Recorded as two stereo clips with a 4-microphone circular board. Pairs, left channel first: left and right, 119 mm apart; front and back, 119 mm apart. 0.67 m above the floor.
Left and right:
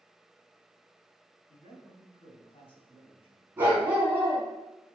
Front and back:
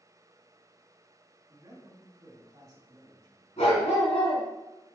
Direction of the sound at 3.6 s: 15° right.